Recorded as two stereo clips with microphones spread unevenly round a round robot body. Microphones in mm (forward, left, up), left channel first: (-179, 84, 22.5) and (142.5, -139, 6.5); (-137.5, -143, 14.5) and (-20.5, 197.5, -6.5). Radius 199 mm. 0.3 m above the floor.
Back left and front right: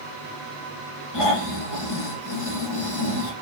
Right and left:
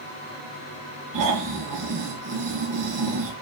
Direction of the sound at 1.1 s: 100° left.